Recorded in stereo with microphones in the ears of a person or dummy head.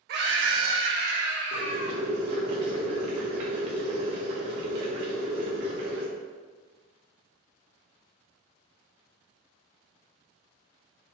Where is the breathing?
I don't hear breathing.